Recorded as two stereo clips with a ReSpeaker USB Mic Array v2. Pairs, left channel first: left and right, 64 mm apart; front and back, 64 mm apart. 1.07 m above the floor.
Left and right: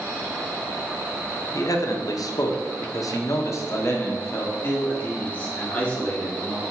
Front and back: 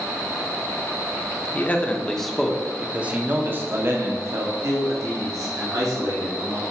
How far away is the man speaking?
About 1.1 m.